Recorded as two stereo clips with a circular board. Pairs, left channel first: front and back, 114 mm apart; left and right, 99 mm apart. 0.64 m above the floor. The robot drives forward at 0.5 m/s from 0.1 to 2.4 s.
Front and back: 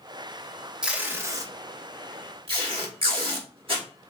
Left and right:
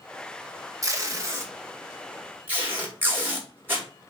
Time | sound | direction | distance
0.8 | tape being pulled | 100° right | 0.7 m